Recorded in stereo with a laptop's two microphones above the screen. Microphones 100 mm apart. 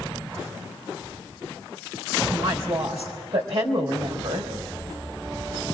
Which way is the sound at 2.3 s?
65° right (ahead or behind).